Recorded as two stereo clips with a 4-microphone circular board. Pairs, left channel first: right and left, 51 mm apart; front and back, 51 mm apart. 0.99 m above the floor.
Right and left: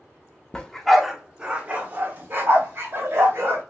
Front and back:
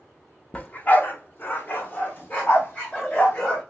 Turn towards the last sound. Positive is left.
turn(degrees=50)